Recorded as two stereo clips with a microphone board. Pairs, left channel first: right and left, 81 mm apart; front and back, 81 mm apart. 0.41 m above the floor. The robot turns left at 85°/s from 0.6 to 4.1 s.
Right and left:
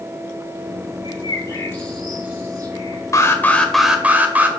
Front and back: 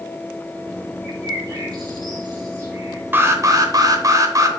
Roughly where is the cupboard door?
No cupboard door in this recording.